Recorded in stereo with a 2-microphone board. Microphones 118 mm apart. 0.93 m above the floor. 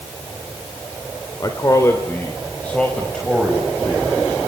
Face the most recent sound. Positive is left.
turn(degrees=0)  # may be behind; listen again after turning